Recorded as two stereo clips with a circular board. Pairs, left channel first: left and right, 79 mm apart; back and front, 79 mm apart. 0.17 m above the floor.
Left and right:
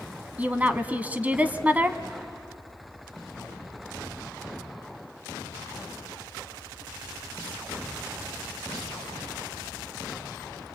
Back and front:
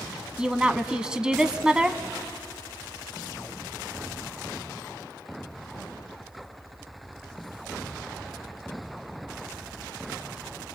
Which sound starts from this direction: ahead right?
A woman speaking, at 0.4 s.